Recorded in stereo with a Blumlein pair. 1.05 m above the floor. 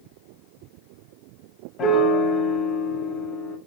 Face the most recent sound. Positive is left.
turn(degrees=25)